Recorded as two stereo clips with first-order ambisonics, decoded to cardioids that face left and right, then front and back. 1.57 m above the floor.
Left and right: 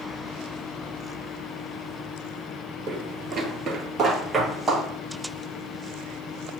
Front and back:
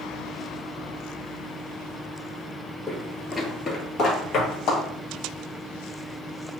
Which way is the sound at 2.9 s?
90° right.